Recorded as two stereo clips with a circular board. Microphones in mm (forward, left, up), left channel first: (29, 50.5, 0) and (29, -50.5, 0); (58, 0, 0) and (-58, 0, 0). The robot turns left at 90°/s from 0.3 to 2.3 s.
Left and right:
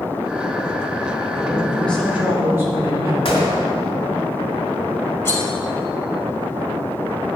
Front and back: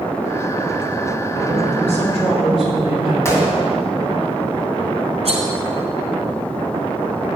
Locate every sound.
1.3 s a man speaking: 60° left, 2.5 m; by 3.1 s 25° right, 2.5 m
3.2 s a gunshot: 65° left, 2.5 m
5.2 s cutlery clinking: 150° left, 1.7 m